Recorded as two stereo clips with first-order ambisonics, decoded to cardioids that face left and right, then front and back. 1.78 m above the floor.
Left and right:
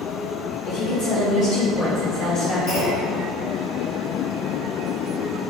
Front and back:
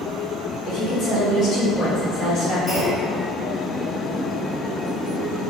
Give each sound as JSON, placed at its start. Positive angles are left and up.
{"t": 0.7, "sound": "a woman speaking", "azimuth_deg": 85, "distance_m": 1.6}
{"t": 2.7, "sound": "a clunk", "azimuth_deg": 75, "distance_m": 1.7}